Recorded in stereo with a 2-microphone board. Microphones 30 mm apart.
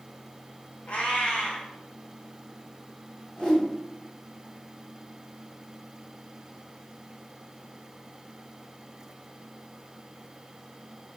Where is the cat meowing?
50° left (ahead or behind), 0.7 m.